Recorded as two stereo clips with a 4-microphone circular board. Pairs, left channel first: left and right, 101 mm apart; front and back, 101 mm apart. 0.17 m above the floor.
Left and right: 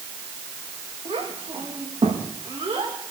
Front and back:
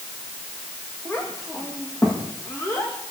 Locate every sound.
1.1 s a child speaking: 65° right, 6 m; by 3.0 s 60° right, 7 m